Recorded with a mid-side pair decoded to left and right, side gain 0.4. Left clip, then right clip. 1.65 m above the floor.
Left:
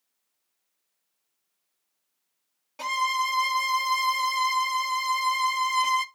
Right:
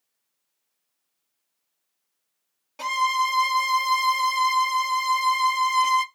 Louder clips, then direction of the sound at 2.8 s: Right 3 dB; 10° right.